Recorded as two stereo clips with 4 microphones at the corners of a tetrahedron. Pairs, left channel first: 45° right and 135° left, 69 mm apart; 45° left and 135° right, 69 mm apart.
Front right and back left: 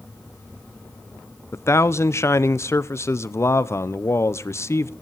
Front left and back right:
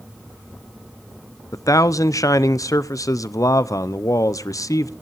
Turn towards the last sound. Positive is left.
turn(degrees=5)